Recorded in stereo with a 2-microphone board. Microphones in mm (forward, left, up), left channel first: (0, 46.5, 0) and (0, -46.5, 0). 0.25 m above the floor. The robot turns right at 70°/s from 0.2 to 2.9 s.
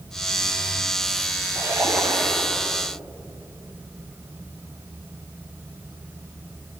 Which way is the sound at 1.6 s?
35° right.